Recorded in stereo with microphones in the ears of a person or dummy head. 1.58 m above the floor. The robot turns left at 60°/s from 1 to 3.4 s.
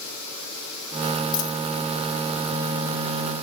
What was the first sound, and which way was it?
A dropped coin, 30° left (ahead or behind).